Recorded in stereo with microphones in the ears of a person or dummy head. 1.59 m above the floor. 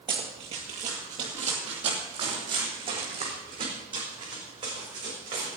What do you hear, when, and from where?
0.1 s running footsteps: 25° right (ahead or behind), 1.8 m